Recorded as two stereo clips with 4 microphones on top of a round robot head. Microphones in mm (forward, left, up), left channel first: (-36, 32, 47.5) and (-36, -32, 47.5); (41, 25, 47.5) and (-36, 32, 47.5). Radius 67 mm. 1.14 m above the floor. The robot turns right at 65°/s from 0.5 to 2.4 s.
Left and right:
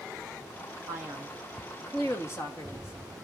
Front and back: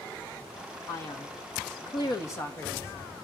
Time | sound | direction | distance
0.9 | a man speaking | 50° right | 1.5 m